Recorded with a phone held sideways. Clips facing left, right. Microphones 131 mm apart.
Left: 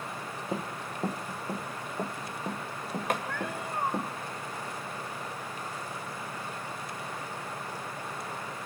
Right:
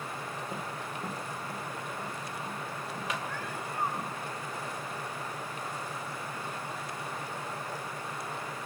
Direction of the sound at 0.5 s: 40° left (ahead or behind).